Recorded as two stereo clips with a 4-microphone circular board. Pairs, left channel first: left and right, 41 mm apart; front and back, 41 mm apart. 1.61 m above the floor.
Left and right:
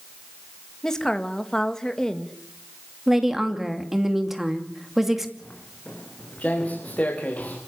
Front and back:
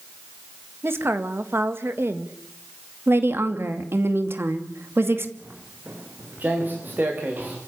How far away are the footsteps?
About 7 m.